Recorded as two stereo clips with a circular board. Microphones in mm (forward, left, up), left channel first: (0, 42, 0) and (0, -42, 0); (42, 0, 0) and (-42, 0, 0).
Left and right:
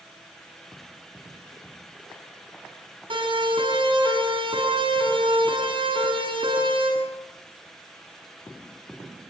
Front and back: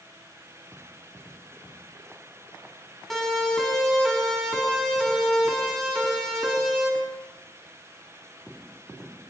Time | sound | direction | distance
3.1 | a siren | 85° right | 7 m